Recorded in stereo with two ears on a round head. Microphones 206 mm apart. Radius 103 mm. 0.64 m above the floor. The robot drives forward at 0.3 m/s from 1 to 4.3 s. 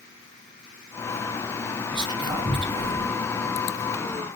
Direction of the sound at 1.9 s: 20° right (ahead or behind).